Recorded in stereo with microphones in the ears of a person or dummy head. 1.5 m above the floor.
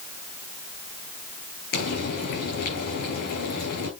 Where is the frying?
55° left (ahead or behind), 4 m.